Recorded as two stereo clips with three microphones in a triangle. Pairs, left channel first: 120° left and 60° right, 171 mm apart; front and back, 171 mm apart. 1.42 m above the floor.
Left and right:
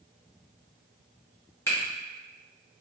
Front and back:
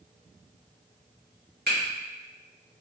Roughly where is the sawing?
I don't hear sawing.